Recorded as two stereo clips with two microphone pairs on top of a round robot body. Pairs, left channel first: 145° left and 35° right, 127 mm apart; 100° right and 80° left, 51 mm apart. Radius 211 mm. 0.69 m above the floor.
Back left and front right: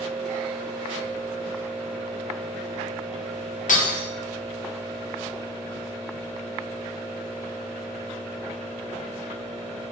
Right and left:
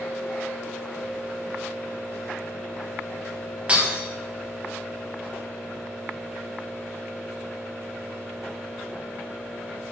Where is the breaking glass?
145° left, 1.2 m.